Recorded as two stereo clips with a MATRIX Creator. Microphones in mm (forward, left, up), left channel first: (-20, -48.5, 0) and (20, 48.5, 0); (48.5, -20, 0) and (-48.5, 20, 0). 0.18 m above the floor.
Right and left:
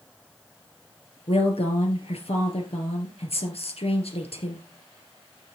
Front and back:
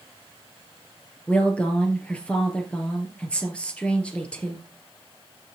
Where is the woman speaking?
100° right, 3 m.